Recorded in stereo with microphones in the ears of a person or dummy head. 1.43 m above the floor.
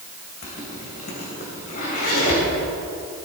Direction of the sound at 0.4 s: 50° left (ahead or behind).